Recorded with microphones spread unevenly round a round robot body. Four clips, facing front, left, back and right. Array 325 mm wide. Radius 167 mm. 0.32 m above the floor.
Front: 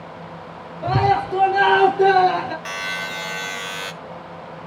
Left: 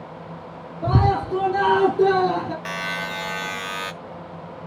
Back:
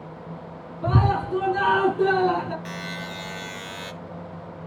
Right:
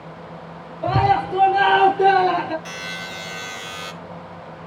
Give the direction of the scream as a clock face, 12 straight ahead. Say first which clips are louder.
Right 3 dB, front 5 dB; 8 o'clock.